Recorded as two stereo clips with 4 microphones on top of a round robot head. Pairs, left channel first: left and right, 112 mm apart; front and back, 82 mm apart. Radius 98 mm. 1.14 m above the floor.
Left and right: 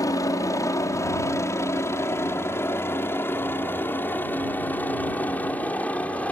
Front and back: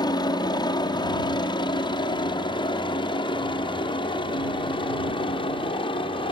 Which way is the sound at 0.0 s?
30° left.